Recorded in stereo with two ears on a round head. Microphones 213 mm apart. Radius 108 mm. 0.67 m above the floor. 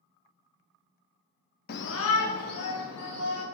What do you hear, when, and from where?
1.7 s a shout: 40° left (ahead or behind), 0.6 m; by 3.4 s 75° left (ahead or behind), 3 m